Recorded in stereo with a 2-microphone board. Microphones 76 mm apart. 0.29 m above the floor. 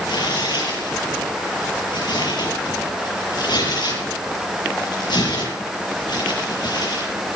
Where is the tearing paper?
70° left (ahead or behind), 8 m.